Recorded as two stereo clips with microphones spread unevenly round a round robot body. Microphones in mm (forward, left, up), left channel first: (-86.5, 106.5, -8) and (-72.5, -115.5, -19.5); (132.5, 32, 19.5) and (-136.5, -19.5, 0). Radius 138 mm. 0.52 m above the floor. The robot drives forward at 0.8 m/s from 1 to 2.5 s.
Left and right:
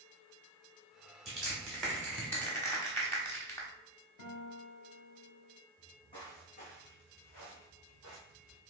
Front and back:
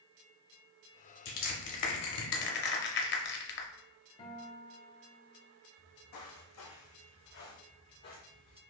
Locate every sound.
1.2 s crushing: 5° left, 1.5 m; by 3.7 s 15° left, 0.7 m
4.2 s a guitar: 80° left, 1.0 m
5.8 s footsteps: 15° left, 1.5 m; by 8.6 s 70° left, 2.5 m